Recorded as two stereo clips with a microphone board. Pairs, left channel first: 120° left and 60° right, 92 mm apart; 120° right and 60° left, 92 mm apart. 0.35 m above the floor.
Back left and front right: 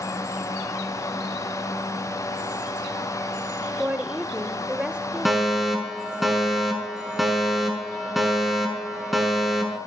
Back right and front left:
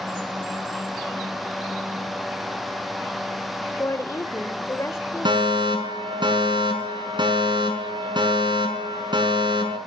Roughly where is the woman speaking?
Behind right.